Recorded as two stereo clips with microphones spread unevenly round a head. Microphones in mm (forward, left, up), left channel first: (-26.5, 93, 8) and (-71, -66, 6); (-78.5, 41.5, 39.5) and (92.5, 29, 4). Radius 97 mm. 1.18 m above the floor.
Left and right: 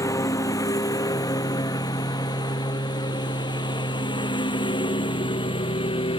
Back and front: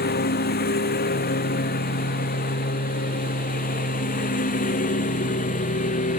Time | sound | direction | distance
0.0 | a lawn mower | 145° left | ?